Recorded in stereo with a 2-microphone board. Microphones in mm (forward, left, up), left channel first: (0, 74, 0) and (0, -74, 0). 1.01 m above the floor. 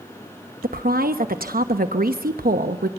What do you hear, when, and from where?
0.6 s a woman speaking: 80° right, 0.9 m